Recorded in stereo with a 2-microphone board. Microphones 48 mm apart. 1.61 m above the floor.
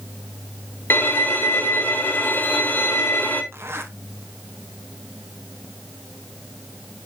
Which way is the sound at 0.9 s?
45° left (ahead or behind).